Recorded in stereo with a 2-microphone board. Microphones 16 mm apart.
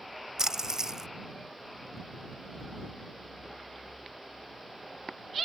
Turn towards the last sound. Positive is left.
turn(degrees=-35)  # may be behind; listen again after turning